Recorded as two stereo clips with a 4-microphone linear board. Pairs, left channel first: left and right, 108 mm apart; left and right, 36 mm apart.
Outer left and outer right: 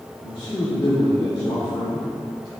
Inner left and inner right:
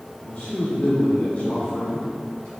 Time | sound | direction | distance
0.2 | a man speaking | 45° left (ahead or behind) | 1.7 m